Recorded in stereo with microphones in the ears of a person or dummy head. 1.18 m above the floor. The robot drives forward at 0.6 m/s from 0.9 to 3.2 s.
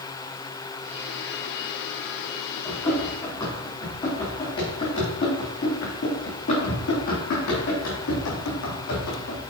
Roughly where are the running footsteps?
Left.